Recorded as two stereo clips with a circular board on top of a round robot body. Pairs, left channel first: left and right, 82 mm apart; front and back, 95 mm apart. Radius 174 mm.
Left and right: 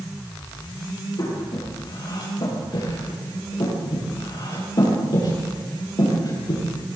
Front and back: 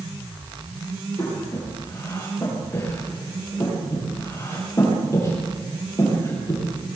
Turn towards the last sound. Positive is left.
turn(degrees=55)